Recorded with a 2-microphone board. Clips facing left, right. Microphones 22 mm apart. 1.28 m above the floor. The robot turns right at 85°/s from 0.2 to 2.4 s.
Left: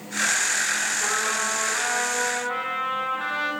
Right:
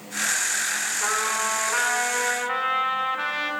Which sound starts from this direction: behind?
A trumpet, at 1.0 s.